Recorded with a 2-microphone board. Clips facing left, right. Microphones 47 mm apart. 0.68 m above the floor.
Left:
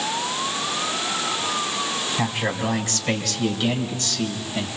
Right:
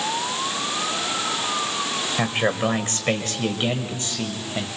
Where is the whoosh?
No whoosh in this recording.